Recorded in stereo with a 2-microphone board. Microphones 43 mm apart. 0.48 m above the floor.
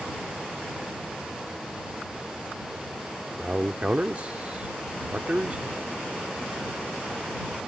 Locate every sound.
3.4 s a man speaking: 30° right (ahead or behind)